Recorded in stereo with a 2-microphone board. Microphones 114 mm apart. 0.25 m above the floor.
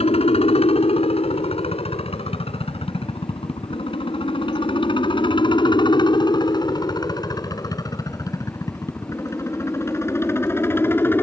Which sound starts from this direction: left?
A helicopter, at 0.0 s.